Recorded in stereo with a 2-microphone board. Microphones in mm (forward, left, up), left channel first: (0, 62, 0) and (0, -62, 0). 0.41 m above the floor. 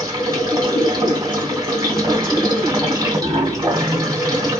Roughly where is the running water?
Right.